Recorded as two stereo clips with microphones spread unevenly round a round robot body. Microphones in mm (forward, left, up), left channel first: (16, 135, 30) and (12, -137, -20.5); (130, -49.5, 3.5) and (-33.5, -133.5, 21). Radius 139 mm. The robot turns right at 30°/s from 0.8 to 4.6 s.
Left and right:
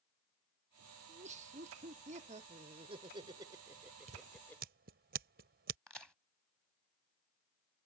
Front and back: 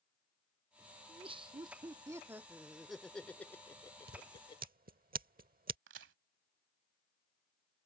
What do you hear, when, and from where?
1.1 s laughter: 110° right; by 4.6 s 5° right
4.1 s scissors: 140° right; by 5.8 s 125° right
5.9 s a crack: straight behind